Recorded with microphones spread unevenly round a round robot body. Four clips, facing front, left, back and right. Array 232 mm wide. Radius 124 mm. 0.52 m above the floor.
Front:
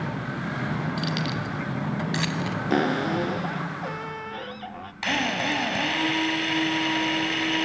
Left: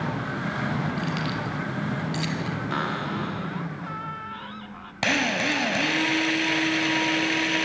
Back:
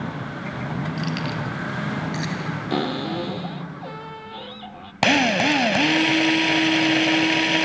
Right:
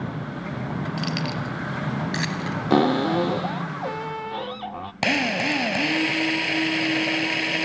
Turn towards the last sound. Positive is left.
turn(degrees=-175)